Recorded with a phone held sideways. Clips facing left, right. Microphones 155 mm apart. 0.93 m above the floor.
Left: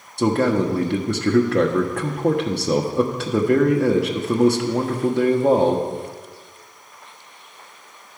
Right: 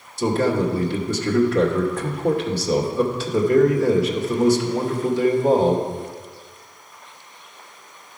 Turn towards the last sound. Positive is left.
turn(degrees=60)  # may be behind; listen again after turning